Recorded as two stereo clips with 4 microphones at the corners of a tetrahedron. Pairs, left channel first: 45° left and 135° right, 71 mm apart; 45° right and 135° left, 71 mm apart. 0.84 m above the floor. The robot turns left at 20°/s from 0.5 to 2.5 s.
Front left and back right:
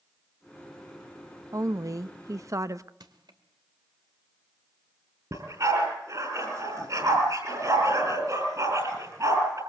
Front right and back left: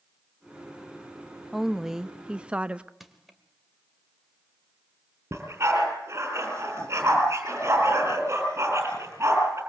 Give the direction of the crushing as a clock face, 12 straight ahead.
5 o'clock.